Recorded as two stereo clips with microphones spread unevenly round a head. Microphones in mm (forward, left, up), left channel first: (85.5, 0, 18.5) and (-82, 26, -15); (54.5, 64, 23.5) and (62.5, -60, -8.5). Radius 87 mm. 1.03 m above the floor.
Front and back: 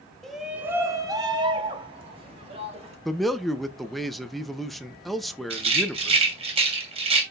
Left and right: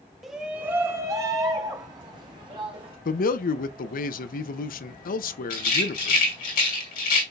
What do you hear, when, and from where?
0.2 s a shout: 120° right, 0.8 m; by 3.0 s 140° right, 2.5 m
3.0 s a man speaking: 85° left, 0.6 m
5.5 s a rattle: 110° left, 2.5 m